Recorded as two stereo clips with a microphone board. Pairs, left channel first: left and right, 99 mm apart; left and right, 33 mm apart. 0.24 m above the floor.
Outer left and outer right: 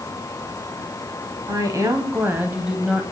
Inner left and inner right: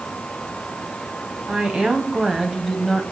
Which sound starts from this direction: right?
A woman speaking, at 1.5 s.